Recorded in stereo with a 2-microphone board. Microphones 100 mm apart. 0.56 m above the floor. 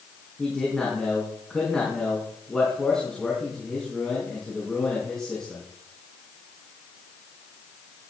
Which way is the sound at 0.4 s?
5° left (ahead or behind).